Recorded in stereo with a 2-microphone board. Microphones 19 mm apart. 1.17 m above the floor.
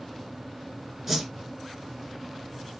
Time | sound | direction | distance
1.1 | a whoosh | 15° right (ahead or behind) | 2.5 m